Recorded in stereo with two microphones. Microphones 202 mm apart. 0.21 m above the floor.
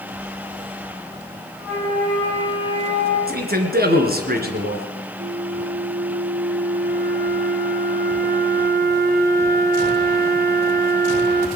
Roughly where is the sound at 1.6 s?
Centre.